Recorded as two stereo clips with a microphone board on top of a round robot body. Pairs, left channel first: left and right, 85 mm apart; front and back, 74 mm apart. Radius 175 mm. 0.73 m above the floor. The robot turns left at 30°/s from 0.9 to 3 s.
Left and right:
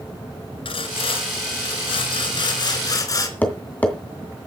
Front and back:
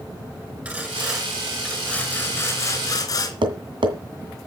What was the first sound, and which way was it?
Sawing, 105° left.